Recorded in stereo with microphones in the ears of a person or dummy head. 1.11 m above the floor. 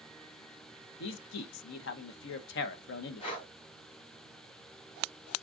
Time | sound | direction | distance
1.0 | a man speaking | 65° left (ahead or behind) | 0.6 m
3.2 | breathing | 35° left (ahead or behind) | 2 m